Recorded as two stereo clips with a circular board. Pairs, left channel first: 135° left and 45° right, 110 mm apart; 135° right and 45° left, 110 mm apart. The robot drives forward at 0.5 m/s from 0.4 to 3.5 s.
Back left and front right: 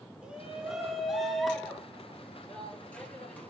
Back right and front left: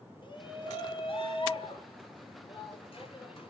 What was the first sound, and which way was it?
A shout, 125° right.